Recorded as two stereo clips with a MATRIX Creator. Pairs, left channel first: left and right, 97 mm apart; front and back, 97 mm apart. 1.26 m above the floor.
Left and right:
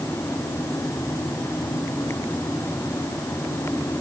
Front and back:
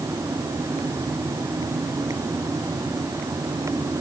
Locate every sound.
Only background noise.